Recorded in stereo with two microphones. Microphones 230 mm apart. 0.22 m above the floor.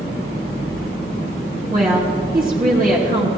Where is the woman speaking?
40° right (ahead or behind), 2.5 m.